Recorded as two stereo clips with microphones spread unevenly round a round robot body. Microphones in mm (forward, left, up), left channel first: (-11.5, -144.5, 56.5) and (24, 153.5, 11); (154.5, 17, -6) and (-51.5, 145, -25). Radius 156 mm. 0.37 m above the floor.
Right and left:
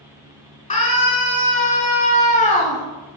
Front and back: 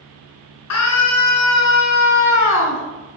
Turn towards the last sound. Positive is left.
turn(degrees=-30)